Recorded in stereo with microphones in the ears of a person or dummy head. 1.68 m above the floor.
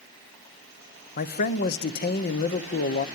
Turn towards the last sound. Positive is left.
turn(degrees=50)  # may be behind; listen again after turning